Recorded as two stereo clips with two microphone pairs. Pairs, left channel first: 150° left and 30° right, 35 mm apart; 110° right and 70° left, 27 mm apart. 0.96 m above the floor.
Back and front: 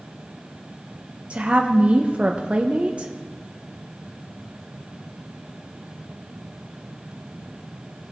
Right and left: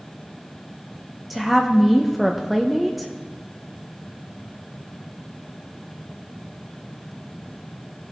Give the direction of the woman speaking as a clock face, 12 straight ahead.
12 o'clock.